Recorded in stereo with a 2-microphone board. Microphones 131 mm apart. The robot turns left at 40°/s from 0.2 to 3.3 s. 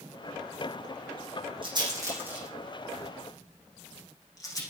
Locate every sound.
1.6 s a rattle: 40° right (ahead or behind), 6.5 m; by 4.6 s 25° left (ahead or behind), 6.5 m